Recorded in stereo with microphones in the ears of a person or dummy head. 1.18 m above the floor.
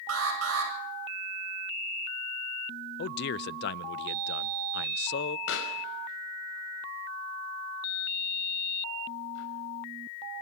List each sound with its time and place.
0.1 s an alarm: 80° right, 9.5 m
3.0 s a man speaking: 60° left (ahead or behind), 0.6 m
5.5 s a pop: 70° left (ahead or behind), 4.5 m